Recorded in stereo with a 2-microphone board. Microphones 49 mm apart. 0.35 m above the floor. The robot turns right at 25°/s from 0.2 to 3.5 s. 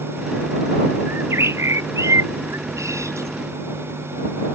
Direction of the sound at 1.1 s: 125° right.